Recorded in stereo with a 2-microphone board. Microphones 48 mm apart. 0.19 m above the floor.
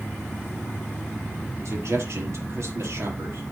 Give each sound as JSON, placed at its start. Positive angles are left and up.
{"t": 1.6, "sound": "a man speaking", "side_deg": -75, "distance_m": 4.0}